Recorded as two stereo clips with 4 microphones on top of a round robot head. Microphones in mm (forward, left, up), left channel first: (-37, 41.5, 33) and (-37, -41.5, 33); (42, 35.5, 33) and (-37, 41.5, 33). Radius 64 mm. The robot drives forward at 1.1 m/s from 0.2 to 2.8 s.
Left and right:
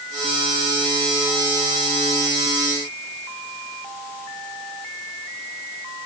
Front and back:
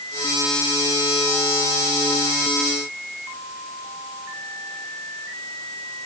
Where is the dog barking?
No dog barking in this recording.